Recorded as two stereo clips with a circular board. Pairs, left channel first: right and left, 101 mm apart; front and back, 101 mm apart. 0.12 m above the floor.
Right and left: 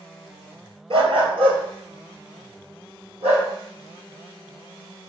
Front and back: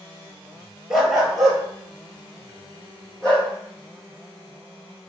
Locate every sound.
0.9 s a dog barking: 95° left, 0.8 m; by 3.5 s 80° left, 2 m